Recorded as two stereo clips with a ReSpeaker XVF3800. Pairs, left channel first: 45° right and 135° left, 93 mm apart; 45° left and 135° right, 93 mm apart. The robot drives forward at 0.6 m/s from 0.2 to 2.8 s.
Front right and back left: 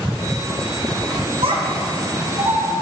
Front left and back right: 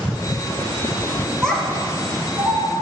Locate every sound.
1.4 s a child speaking: 130° left, 1.7 m; by 2.6 s 145° left, 2 m